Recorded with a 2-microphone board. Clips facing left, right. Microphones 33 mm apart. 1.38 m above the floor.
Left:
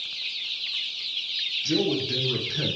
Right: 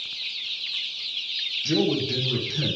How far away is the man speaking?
About 0.9 m.